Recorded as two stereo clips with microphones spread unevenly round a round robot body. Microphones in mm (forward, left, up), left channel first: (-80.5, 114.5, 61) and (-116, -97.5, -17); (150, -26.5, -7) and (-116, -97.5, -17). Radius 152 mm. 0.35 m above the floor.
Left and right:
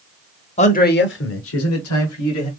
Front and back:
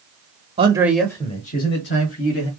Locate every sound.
0.6 s a man speaking: 150° left, 1.1 m; by 2.5 s 55° left, 2.0 m